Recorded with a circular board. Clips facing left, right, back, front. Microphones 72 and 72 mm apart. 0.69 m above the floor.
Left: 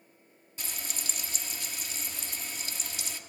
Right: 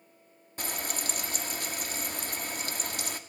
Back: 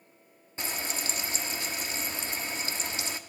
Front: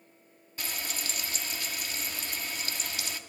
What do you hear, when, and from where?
0.6 s frying: 120° right, 1.0 m